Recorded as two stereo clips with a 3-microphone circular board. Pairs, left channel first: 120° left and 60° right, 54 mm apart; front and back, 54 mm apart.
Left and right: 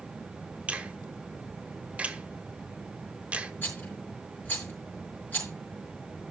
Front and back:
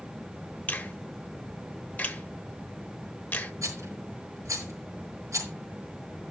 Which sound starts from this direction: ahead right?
A finger snap, at 0.7 s.